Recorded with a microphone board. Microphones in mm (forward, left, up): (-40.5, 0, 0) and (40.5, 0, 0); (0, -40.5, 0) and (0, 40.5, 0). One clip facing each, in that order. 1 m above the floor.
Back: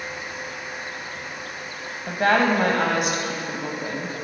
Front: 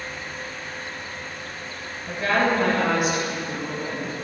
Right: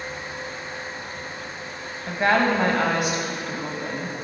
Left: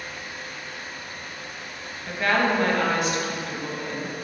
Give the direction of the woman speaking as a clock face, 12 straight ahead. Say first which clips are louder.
Back 3 dB, right 2 dB; 5 o'clock.